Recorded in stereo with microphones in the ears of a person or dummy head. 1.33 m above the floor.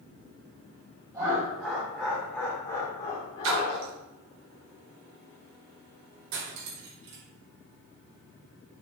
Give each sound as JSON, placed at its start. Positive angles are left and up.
{"t": 1.1, "sound": "laughter", "side_deg": -30, "distance_m": 1.3}
{"t": 3.4, "sound": "a splash", "side_deg": -65, "distance_m": 0.7}
{"t": 6.3, "sound": "cutlery clinking", "side_deg": -65, "distance_m": 1.1}